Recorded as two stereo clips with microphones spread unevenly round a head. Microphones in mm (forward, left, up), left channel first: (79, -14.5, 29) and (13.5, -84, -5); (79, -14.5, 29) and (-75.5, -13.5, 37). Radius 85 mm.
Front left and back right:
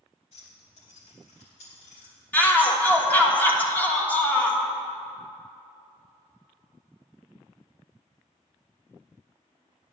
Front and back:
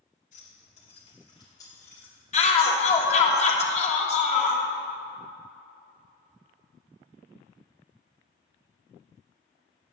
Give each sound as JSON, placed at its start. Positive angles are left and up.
{"t": 0.3, "sound": "keys jangling", "azimuth_deg": 40, "distance_m": 2.5}
{"t": 2.3, "sound": "a shout", "azimuth_deg": -35, "distance_m": 1.4}